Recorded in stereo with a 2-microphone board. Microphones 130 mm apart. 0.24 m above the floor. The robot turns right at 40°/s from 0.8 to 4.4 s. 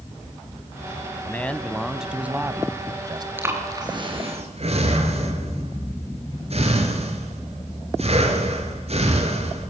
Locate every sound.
1.2 s a man speaking: 160° left, 1.6 m; by 3.3 s 120° right, 1.6 m
3.4 s breathing: 15° right (ahead or behind), 5 m; by 9.7 s 55° right (ahead or behind), 5 m